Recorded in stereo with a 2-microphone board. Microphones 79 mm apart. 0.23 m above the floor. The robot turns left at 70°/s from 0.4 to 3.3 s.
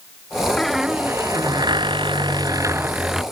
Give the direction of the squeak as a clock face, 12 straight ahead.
12 o'clock.